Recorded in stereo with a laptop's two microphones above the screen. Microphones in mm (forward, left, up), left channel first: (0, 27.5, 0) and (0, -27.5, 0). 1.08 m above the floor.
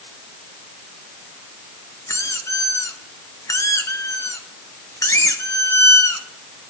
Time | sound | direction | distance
2.1 | a squeak | 80° left | 0.8 m